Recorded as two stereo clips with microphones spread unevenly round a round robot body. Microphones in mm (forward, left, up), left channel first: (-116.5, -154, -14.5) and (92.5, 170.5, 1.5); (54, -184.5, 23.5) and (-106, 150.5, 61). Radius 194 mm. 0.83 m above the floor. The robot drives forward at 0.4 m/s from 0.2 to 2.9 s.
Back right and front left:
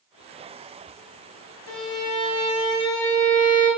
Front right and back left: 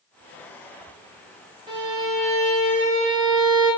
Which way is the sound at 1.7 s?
165° right.